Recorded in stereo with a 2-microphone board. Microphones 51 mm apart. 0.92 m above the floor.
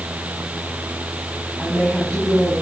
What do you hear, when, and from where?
1.6 s a woman speaking: 20° left (ahead or behind), 7.5 m